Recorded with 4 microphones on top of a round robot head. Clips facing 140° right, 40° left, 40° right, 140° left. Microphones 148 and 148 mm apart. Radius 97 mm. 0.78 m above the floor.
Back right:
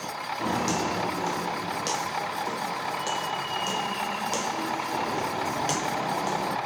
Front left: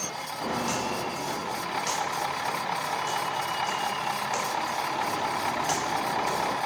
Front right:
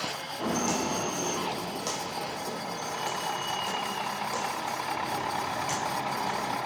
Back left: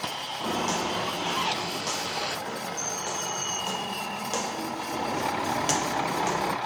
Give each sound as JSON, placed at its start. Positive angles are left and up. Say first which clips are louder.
{"t": 0.4, "sound": "footsteps", "louder": "back right 3 dB, even", "azimuth_deg": -100, "distance_m": 2.5}